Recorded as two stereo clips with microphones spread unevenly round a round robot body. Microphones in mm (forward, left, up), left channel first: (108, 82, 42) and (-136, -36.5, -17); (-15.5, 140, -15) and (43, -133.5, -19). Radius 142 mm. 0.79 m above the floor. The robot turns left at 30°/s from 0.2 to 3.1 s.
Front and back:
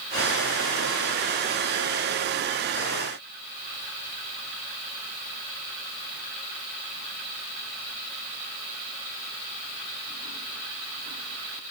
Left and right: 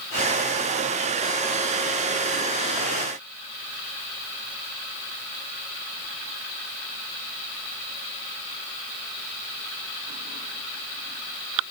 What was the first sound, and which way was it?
Only background noise.